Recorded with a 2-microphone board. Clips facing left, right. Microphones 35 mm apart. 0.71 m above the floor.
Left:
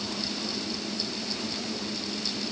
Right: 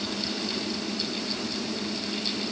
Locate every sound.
Only background noise.